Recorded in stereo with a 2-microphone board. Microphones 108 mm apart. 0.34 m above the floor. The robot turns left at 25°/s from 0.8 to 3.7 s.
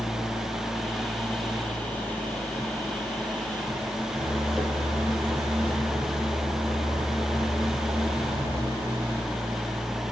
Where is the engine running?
75° left, 6 m; by 10.1 s 5° left, 6 m.